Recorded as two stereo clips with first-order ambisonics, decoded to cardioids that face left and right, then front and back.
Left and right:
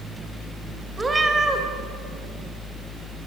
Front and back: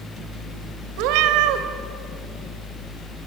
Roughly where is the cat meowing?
Behind.